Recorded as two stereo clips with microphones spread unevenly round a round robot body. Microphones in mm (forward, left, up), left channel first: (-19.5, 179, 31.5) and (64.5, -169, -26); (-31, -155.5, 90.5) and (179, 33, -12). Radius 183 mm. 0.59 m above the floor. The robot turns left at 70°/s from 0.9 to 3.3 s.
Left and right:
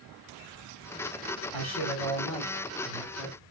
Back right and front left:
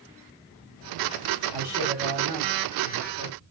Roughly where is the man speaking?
Behind left.